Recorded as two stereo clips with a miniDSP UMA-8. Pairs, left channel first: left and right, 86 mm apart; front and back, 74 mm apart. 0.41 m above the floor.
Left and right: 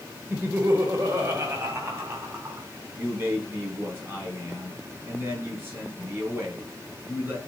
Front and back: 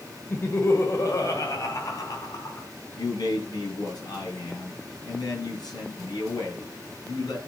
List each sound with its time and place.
0.3 s laughter: 45° right, 1.3 m; by 2.7 s 35° right, 4 m
3.0 s a man speaking: 30° right, 7 m